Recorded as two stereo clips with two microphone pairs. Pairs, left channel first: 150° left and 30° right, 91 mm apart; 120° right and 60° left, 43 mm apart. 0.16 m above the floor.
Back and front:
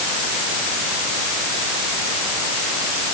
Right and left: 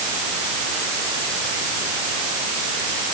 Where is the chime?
I don't hear a chime.